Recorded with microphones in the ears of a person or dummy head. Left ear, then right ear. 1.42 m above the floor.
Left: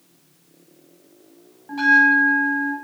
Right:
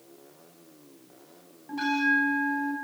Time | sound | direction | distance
1.7 | a bell | 25° left (ahead or behind) | 6.5 m